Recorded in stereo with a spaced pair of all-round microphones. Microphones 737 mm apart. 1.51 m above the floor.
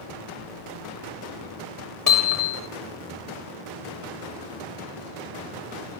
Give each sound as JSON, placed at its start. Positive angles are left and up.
{"t": 2.1, "sound": "hammering", "side_deg": 25, "distance_m": 4.5}